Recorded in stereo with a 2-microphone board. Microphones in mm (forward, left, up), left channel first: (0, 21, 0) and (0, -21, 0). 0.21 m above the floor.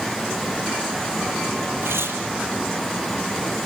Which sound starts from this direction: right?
Tearing paper, at 1.8 s.